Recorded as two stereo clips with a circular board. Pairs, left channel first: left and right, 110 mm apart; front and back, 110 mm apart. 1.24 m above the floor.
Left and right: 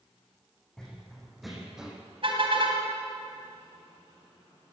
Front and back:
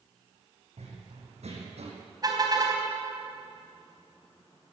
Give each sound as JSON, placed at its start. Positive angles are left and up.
{"t": 0.8, "sound": "running footsteps", "azimuth_deg": 175, "distance_m": 5.0}
{"t": 2.2, "sound": "a car horn", "azimuth_deg": -125, "distance_m": 3.5}